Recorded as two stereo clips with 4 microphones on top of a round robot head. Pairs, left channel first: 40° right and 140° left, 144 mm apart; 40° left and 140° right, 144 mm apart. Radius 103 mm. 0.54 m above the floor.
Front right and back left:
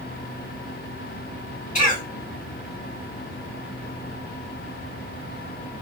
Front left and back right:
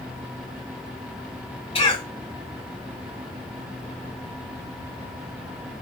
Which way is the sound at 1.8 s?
10° right.